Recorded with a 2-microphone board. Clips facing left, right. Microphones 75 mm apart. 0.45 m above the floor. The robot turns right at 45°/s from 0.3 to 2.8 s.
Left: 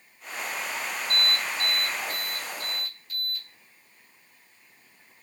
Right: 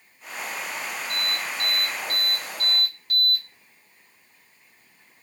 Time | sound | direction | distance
1.1 | an alarm | 150° right | 4.5 m